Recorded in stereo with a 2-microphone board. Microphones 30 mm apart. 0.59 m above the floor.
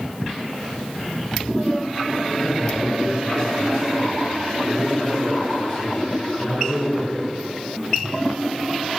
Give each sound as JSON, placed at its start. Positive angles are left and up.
{"t": 2.4, "sound": "a man speaking", "side_deg": 25, "distance_m": 3.5}